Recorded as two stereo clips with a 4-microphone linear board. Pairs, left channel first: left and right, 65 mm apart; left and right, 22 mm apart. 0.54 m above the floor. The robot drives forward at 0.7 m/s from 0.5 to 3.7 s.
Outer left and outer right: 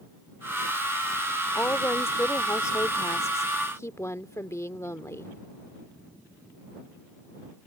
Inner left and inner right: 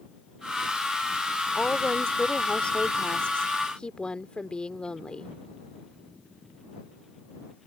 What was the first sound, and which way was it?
A woman speaking, 35° left (ahead or behind).